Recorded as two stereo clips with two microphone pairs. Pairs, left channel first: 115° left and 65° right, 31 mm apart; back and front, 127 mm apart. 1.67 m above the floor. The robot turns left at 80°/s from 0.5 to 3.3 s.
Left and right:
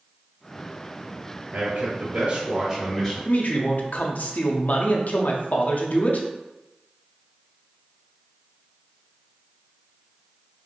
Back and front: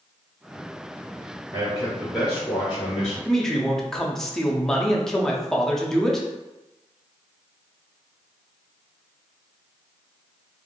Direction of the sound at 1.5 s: 40° right.